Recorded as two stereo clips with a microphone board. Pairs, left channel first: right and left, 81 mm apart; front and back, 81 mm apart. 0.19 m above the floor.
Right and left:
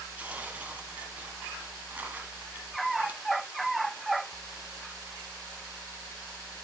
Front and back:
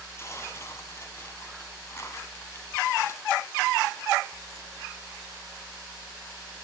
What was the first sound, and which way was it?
Tearing paper, 30° left.